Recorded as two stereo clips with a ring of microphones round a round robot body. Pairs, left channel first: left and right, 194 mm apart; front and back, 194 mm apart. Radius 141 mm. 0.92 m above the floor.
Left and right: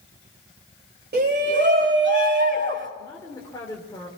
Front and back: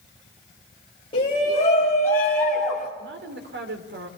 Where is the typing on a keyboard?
No typing on a keyboard in this recording.